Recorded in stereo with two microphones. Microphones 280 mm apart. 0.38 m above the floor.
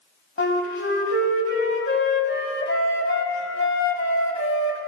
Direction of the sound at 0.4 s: 45° left (ahead or behind).